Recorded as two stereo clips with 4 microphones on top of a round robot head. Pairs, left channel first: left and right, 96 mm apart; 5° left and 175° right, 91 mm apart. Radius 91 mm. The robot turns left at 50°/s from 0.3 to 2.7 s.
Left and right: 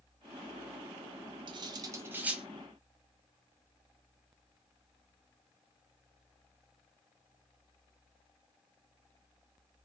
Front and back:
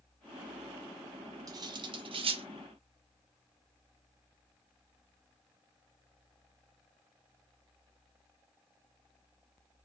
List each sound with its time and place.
1.5 s cutlery clinking: 125° right, 0.5 m; by 2.4 s 175° right, 0.5 m